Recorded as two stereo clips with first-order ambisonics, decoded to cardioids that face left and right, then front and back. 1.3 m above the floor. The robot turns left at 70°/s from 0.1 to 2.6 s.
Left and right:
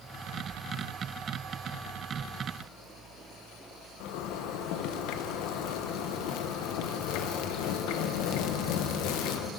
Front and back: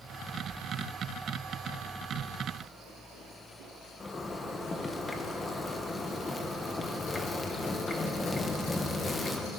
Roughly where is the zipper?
Left.